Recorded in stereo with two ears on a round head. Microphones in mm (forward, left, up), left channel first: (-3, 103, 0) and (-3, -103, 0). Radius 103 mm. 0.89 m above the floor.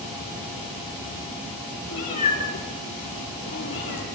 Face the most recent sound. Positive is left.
turn(degrees=55)  # may be behind; listen again after turning